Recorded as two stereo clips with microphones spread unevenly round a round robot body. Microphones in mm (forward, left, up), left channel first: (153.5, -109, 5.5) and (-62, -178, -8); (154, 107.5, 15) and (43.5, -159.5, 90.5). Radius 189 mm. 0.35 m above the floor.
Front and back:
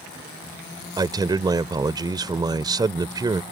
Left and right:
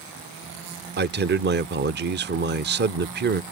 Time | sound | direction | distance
1.0 | a man speaking | 145° right | ?